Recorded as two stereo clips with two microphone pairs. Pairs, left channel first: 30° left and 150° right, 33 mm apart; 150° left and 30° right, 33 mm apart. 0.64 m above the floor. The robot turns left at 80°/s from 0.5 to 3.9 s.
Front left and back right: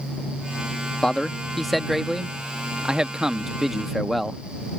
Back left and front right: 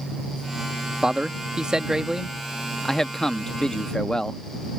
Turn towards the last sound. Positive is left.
turn(degrees=125)